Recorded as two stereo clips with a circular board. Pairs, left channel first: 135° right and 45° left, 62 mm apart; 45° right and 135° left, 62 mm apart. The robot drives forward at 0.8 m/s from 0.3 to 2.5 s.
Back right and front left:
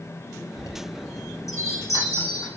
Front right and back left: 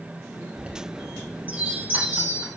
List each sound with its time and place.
0.6 s a chime: 160° right, 2.5 m; by 2.5 s 165° right, 4 m